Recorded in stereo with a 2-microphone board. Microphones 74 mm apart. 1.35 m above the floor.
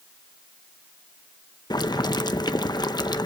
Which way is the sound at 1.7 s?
70° left (ahead or behind).